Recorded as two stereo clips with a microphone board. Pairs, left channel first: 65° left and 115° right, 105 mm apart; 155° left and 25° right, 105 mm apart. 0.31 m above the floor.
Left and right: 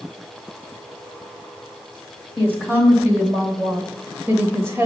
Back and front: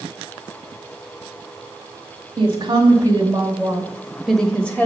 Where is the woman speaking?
40° right, 1.6 m; by 4.9 s 150° right, 1.3 m.